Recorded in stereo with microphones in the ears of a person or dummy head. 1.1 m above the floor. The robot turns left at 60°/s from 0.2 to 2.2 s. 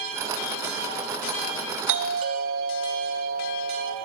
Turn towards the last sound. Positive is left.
turn(degrees=-55)  # may be behind; listen again after turning